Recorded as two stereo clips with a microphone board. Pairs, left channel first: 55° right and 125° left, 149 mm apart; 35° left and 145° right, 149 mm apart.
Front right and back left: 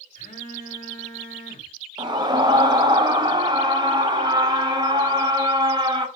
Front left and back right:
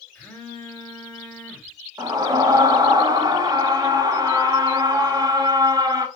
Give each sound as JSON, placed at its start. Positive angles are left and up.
{"t": 0.1, "sound": "a phone buzzing", "azimuth_deg": -45, "distance_m": 0.9}
{"t": 2.0, "sound": "a scream", "azimuth_deg": 165, "distance_m": 0.6}